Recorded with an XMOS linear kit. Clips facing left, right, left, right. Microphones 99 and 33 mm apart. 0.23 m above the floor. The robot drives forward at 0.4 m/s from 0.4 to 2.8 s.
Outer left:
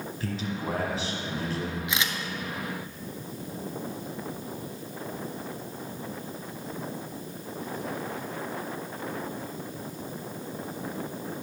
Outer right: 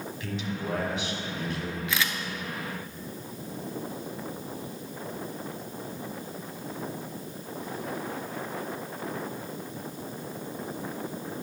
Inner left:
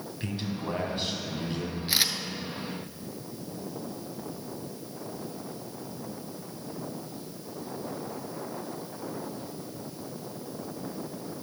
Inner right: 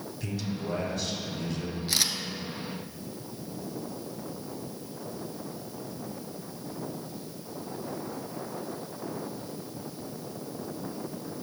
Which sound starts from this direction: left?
A man speaking, at 0.2 s.